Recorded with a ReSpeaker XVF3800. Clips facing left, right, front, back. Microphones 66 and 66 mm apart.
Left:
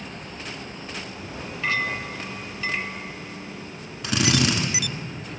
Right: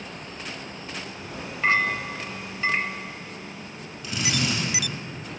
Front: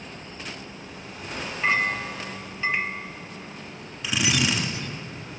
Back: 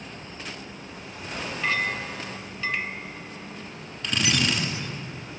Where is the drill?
80° left, 1.3 m.